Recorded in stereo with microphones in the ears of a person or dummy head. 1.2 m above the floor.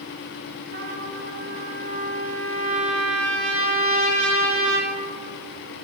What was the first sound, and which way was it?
A trumpet, 35° right (ahead or behind).